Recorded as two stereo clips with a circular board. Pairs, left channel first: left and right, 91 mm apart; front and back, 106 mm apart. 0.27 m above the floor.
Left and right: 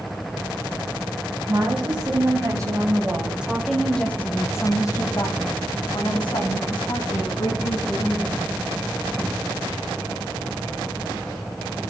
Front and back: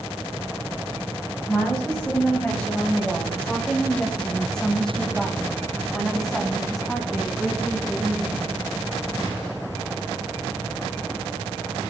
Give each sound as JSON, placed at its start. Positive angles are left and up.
{"t": 1.5, "sound": "a woman speaking", "azimuth_deg": -80, "distance_m": 1.7}